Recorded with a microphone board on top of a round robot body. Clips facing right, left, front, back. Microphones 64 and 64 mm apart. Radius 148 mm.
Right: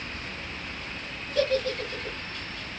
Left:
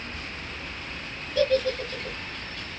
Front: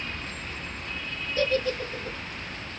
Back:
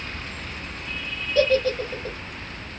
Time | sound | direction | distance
1.4 | a giggle | straight behind | 1.4 m